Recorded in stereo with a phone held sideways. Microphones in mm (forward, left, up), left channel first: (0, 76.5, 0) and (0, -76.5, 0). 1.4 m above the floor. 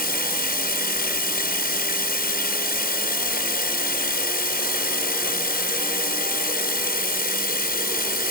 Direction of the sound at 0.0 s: 85° left.